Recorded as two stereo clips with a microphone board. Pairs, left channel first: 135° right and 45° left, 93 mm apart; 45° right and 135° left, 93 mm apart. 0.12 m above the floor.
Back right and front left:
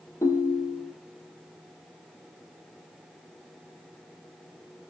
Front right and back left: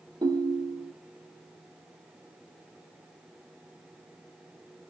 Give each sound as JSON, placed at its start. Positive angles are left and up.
{"t": 0.2, "sound": "a ringtone", "azimuth_deg": 170, "distance_m": 1.5}